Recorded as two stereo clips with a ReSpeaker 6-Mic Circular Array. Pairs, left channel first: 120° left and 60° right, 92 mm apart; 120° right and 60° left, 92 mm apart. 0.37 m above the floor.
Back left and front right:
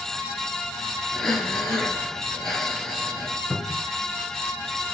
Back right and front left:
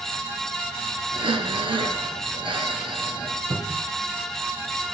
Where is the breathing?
35° left, 1.8 m.